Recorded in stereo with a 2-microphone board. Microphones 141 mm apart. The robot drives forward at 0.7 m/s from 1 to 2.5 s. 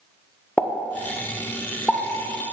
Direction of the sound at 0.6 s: 10° left (ahead or behind).